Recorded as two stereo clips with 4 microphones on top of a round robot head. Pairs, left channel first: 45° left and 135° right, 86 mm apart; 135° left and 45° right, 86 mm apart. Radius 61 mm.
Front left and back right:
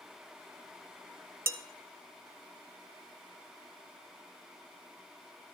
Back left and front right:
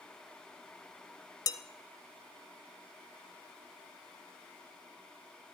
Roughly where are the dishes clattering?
Behind.